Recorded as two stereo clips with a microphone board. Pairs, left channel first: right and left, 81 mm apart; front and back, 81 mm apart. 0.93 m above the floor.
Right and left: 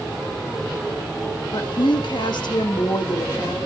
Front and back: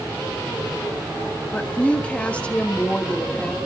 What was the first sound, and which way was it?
A woman speaking, 75° right.